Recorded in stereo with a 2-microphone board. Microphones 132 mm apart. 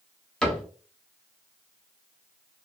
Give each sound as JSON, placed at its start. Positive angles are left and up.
{"t": 0.4, "sound": "a cupboard door", "side_deg": 5, "distance_m": 0.9}